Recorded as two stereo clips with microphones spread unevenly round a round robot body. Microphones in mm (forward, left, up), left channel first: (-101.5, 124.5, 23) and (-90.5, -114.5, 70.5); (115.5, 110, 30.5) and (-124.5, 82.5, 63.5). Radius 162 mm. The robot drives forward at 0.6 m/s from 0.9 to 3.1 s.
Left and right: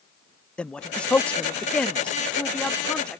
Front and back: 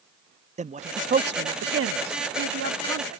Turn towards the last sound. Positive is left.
turn(degrees=175)